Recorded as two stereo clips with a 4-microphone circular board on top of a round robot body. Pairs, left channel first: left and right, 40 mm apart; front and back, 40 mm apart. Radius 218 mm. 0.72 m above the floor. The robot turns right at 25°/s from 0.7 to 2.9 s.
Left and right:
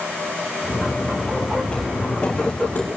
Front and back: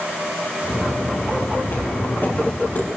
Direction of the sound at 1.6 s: 20° left.